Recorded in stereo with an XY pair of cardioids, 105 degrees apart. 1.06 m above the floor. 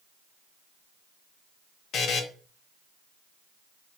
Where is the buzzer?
65° left, 0.5 m.